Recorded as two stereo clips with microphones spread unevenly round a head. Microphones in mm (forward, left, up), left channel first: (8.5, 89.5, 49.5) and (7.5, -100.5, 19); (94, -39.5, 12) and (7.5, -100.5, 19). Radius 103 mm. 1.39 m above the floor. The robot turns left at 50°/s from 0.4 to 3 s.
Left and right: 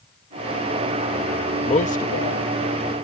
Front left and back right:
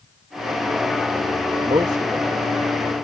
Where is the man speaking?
155° left; by 2.5 s 115° left.